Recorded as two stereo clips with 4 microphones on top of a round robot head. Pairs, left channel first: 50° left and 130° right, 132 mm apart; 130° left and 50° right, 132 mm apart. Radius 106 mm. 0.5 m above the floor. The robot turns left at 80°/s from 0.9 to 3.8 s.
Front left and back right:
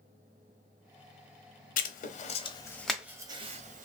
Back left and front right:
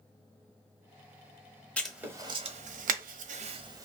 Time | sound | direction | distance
1.8 | writing | 50° left | 0.6 m